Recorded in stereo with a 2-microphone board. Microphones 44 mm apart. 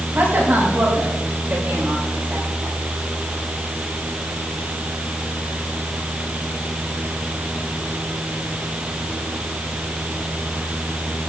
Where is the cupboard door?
I don't hear a cupboard door.